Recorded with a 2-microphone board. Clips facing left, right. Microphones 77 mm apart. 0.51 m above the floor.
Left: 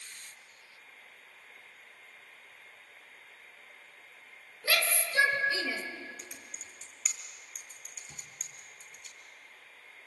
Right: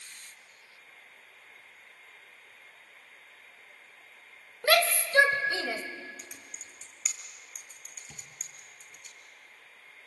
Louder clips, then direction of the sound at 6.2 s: Even; centre (ahead or behind).